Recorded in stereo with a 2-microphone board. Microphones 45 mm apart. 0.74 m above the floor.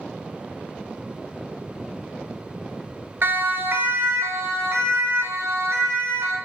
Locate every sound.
3.2 s a siren: 45° right (ahead or behind), 2.5 m; by 6.4 s 70° right (ahead or behind), 5.5 m